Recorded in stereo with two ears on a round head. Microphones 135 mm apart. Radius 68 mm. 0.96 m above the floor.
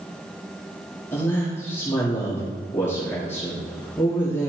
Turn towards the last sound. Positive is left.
turn(degrees=15)  # may be behind; listen again after turning